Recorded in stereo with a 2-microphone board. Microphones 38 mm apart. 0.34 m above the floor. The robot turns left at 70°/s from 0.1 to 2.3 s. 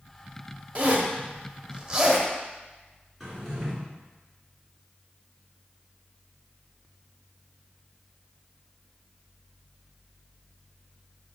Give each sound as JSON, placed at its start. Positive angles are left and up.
{"t": 0.8, "sound": "a zipper", "side_deg": -35, "distance_m": 1.0}
{"t": 3.2, "sound": "a drawer", "side_deg": -5, "distance_m": 2.5}